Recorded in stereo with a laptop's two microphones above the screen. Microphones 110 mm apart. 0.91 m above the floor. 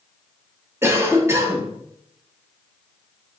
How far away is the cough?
About 0.8 m.